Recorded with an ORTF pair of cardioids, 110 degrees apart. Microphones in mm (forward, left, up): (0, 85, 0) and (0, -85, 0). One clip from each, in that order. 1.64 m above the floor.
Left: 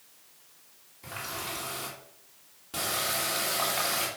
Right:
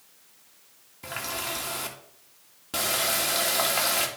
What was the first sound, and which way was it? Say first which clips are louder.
A running tap: right 4 dB; 45° right.